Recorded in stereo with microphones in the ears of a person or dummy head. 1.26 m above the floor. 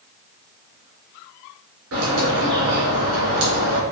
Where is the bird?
75° right (ahead or behind), 2 m.